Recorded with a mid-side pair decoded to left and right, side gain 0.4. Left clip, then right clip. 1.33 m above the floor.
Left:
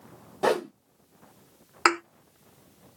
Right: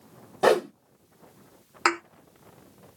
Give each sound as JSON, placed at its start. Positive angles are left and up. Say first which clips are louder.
{"t": 0.4, "sound": "a whoosh", "louder": "right 4 dB", "azimuth_deg": -30, "distance_m": 1.3}
{"t": 1.9, "sound": "a thud", "louder": "left 2 dB", "azimuth_deg": 25, "distance_m": 2.0}